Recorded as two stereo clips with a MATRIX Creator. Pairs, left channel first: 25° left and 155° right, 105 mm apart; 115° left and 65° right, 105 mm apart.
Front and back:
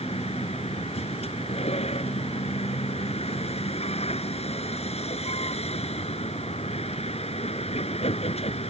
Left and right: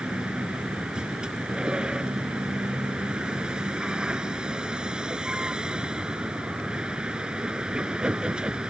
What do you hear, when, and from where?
0.0 s a vehicle: 15° left